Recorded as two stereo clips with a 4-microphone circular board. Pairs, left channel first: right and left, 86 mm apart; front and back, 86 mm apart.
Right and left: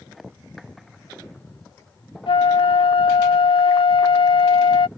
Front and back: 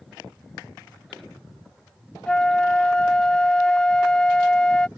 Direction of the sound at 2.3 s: 80° right.